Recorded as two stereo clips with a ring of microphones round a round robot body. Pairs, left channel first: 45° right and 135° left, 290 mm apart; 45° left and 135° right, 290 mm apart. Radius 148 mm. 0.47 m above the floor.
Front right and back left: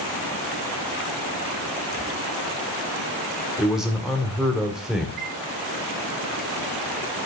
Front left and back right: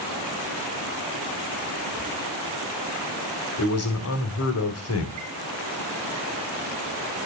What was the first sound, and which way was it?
A man speaking, 45° left.